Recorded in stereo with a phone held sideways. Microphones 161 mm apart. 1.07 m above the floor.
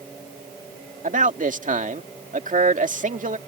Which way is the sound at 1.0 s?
55° right (ahead or behind).